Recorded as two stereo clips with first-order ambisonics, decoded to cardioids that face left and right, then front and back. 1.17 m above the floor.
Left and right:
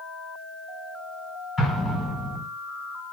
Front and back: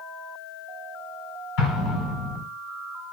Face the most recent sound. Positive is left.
turn(degrees=15)